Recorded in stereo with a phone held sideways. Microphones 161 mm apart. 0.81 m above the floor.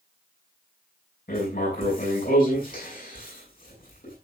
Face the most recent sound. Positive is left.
turn(degrees=65)  # may be behind; listen again after turning